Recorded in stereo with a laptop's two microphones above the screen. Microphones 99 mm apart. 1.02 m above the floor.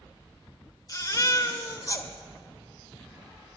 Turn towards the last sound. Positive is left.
turn(degrees=40)  # may be behind; listen again after turning